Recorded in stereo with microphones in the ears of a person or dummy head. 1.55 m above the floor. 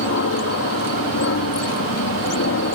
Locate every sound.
0.0 s an aircraft: 65° left (ahead or behind)